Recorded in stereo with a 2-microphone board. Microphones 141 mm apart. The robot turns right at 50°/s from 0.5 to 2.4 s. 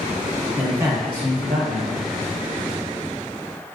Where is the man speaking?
170° right, 1.6 m; by 2.1 s 95° right, 1.6 m.